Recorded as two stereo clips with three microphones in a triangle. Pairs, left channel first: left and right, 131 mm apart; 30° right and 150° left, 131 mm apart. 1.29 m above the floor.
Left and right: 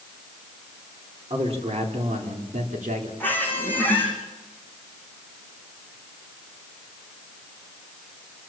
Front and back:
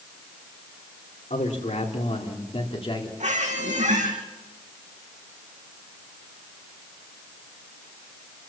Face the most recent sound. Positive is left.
turn(degrees=165)